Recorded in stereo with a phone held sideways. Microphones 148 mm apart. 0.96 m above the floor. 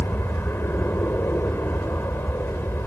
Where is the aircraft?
15° left (ahead or behind).